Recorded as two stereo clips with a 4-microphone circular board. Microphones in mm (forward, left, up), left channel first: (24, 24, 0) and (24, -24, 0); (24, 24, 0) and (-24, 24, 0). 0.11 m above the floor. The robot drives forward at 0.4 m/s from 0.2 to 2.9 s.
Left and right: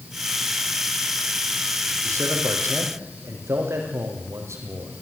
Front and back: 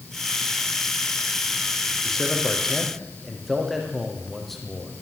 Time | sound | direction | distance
2.0 | a man speaking | 80° right | 5.5 m